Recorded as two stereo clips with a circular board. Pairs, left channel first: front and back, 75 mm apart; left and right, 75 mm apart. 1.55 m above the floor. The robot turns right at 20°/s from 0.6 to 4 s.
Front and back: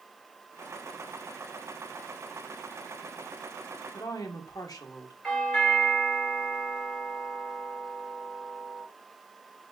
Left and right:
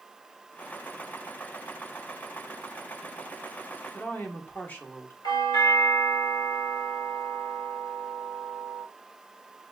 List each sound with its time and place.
3.9 s a woman speaking: 25° left, 1.0 m
5.2 s a doorbell: 85° left, 1.9 m